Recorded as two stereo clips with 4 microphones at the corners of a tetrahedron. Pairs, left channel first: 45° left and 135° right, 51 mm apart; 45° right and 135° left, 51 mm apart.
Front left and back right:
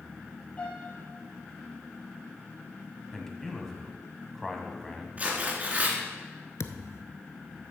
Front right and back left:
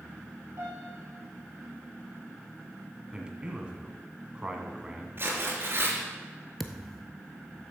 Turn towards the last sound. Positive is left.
turn(degrees=45)